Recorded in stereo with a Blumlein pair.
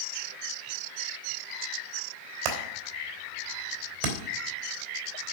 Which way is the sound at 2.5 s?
50° right.